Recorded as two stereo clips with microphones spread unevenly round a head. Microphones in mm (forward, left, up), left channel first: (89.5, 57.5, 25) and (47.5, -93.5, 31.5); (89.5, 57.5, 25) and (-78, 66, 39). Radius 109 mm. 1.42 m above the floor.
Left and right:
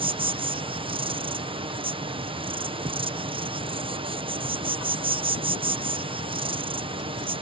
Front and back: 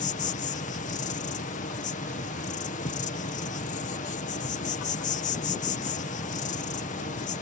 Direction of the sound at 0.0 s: 50° right.